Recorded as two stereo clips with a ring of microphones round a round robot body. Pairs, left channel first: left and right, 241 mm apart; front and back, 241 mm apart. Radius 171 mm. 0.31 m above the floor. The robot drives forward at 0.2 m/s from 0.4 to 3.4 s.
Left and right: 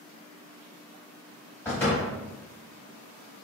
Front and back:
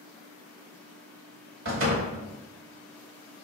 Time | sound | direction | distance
1.6 | a door slam | 170° left | 1.1 m